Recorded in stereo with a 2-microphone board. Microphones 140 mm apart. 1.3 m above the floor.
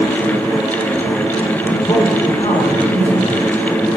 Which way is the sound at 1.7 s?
35° left (ahead or behind).